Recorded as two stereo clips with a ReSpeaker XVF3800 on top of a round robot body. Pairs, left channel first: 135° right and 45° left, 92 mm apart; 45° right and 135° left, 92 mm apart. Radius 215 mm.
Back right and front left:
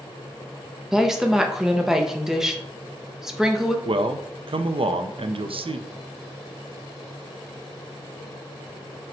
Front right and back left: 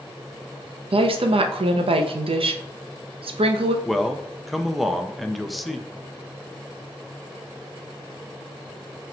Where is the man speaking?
45° left, 0.5 m.